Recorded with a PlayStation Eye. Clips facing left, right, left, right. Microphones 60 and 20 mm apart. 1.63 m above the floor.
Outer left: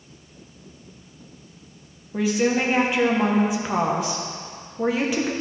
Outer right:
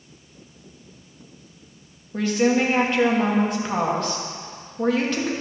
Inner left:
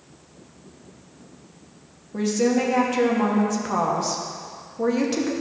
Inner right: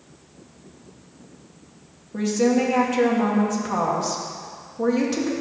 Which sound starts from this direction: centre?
A woman speaking, at 2.1 s.